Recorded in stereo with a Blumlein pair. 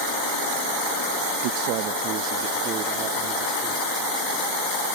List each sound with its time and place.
1.4 s a man speaking: 45° right; by 3.9 s 25° right